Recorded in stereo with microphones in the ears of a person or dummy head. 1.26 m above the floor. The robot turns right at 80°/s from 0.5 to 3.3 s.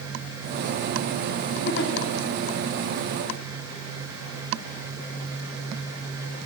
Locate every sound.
1.6 s a giggle: 55° left (ahead or behind), 1.3 m; by 1.9 s 65° left (ahead or behind), 1.3 m